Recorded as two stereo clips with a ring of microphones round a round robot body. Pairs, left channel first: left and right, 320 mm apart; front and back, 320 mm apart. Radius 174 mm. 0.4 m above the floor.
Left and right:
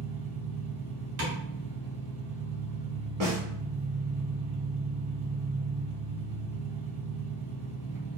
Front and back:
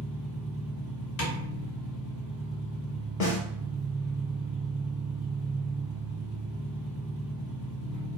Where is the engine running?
10° right, 1.8 m.